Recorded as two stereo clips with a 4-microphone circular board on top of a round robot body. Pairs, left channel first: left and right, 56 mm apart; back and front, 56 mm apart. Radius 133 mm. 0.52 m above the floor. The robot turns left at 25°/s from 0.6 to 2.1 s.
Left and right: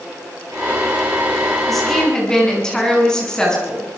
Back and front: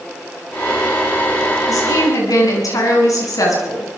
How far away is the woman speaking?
About 8.5 m.